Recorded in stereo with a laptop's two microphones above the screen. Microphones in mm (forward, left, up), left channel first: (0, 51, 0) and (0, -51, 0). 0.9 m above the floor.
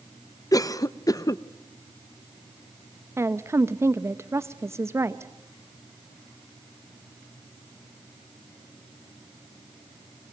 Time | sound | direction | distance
0.5 | a cough | 35° left (ahead or behind) | 0.6 m
3.2 | a woman speaking | 25° right (ahead or behind) | 0.8 m